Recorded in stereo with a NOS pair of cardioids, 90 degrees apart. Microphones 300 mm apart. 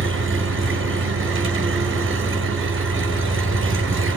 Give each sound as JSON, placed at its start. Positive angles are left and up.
{"t": 0.0, "sound": "an engine running", "azimuth_deg": -40, "distance_m": 5.5}